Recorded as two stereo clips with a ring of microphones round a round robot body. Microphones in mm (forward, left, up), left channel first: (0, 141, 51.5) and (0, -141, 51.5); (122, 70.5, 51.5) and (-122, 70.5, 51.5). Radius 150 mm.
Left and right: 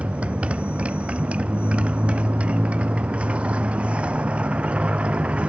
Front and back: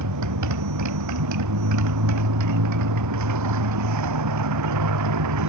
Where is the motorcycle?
175° right.